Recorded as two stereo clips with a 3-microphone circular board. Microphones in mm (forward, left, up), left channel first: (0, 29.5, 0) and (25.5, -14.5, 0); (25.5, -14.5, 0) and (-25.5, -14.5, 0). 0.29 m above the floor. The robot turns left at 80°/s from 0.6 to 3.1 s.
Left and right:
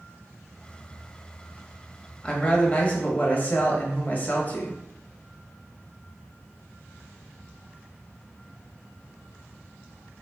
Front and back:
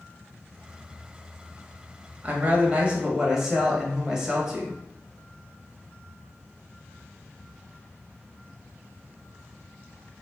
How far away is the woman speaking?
About 1.1 m.